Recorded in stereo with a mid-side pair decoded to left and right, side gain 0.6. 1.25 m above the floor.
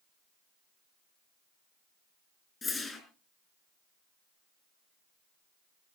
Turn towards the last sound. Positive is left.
turn(degrees=20)